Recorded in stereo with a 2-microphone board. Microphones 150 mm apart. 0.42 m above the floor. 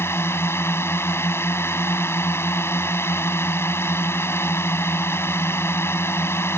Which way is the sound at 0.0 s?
15° left (ahead or behind).